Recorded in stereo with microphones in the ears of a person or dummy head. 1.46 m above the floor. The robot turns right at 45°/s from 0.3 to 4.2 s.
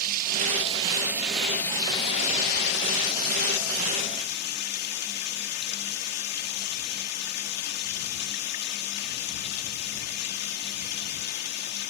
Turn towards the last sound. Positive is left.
turn(degrees=130)